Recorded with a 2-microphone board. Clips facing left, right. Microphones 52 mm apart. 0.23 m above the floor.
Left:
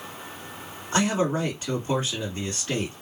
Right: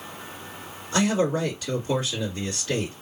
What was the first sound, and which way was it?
A man speaking, 30° left (ahead or behind).